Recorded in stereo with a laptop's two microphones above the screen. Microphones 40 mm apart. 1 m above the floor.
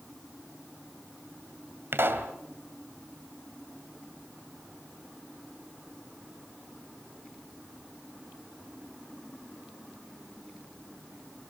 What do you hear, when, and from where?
1.9 s a pop: 70° right (ahead or behind), 2.0 m